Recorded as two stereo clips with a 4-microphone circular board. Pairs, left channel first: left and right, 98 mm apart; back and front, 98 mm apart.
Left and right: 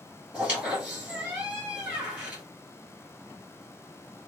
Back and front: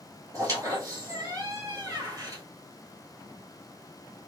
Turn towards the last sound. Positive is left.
turn(degrees=-25)